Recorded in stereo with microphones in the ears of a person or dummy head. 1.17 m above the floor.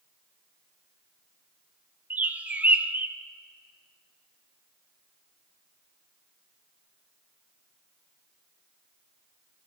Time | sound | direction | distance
2.1 | a bird | 10° right (ahead or behind) | 0.6 m